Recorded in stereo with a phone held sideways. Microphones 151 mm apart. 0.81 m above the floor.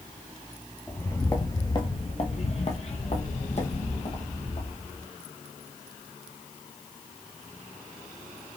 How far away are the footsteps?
About 0.9 m.